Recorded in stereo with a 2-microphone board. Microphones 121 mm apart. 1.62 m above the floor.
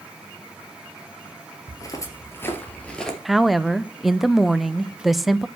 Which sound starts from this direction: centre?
A woman speaking, at 3.2 s.